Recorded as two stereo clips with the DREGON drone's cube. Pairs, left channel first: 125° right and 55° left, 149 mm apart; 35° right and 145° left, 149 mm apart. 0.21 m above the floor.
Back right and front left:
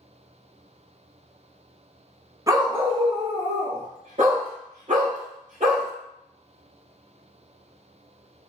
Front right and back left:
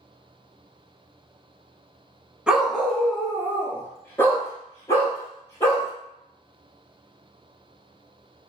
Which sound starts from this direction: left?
A dog barking, at 2.5 s.